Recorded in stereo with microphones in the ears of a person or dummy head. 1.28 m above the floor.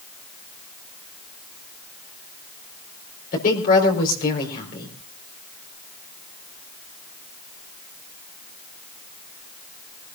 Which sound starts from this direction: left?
A woman speaking, at 3.3 s.